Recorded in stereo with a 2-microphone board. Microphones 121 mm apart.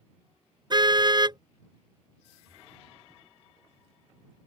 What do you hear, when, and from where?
0.7 s a car horn: 40° right (ahead or behind)